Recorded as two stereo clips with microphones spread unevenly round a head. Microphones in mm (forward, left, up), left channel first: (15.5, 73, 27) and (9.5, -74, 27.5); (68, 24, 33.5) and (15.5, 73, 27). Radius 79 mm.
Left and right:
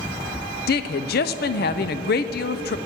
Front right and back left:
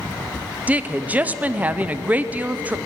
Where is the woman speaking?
65° left, 0.6 m.